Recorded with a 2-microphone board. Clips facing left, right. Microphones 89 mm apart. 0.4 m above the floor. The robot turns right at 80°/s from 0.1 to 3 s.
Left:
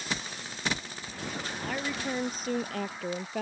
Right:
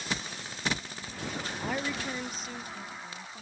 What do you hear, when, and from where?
1.6 s a woman speaking: 15° right; by 3.4 s 95° left